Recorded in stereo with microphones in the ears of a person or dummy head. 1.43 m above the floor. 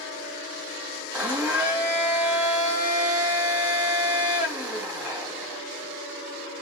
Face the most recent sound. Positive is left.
turn(degrees=5)  # may be behind; listen again after turning